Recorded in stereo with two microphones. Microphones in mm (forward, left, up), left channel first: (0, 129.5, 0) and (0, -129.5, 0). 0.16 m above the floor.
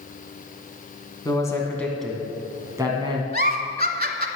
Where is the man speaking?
15° left (ahead or behind), 1.7 m; by 3.2 s 20° right (ahead or behind), 1.6 m.